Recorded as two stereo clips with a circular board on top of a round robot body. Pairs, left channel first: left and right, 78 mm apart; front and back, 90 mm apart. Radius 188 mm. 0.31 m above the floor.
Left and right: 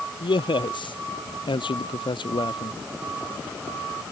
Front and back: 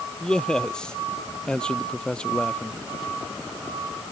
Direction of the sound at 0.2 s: 80° left.